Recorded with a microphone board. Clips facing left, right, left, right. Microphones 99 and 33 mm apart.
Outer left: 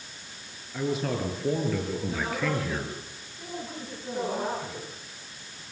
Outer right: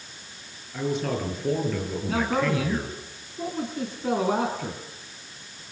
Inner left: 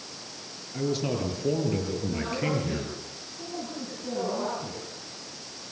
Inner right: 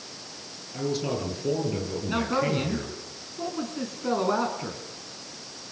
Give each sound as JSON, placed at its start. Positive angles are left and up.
{"t": 0.7, "sound": "a man speaking", "side_deg": 5, "distance_m": 7.5}
{"t": 2.1, "sound": "a man speaking", "side_deg": -75, "distance_m": 5.5}